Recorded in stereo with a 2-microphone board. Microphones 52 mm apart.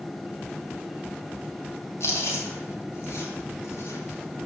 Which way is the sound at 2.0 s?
60° left (ahead or behind).